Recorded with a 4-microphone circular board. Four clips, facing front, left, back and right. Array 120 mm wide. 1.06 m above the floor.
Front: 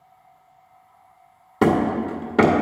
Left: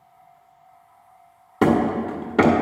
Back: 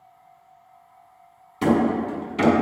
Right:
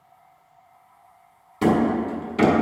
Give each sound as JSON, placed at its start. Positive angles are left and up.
{"t": 1.6, "sound": "hammering", "azimuth_deg": 40, "distance_m": 1.9}